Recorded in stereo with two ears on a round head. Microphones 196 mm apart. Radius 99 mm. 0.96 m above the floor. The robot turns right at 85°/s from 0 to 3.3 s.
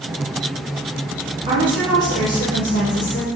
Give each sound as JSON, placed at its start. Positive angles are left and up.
{"t": 1.5, "sound": "a woman speaking", "azimuth_deg": -25, "distance_m": 1.2}